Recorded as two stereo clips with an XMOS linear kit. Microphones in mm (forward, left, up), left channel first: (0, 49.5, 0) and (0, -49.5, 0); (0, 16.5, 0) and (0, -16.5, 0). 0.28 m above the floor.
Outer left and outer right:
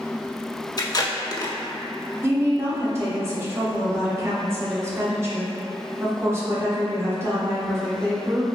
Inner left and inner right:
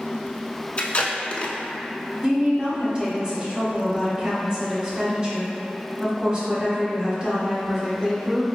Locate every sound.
0.8 s tape being pulled: 40° left (ahead or behind), 0.5 m
2.2 s a woman speaking: 25° right (ahead or behind), 1.0 m